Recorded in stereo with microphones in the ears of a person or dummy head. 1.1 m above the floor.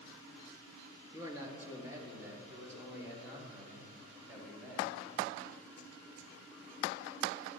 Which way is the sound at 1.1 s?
20° right (ahead or behind).